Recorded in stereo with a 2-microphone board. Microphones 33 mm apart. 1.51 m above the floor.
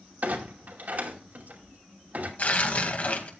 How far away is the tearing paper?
About 2.0 m.